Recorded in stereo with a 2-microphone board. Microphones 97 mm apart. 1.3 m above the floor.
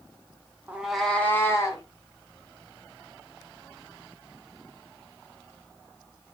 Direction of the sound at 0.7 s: 15° right (ahead or behind).